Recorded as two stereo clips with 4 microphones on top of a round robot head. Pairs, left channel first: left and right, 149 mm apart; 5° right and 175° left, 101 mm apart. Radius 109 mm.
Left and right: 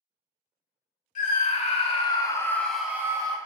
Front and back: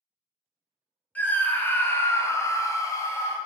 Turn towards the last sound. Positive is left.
turn(degrees=-50)